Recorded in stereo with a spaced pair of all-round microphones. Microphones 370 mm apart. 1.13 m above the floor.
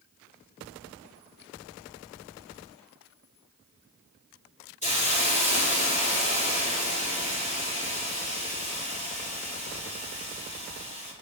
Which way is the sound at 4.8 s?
20° left (ahead or behind).